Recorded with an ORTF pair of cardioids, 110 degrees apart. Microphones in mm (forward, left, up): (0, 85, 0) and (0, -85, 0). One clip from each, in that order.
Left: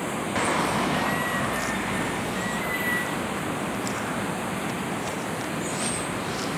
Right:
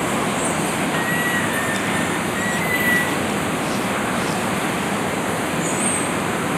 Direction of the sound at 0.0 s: 45° right.